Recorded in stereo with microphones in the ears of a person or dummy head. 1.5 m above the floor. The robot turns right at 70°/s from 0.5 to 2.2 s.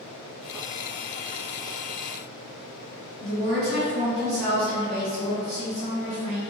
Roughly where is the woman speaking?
Right.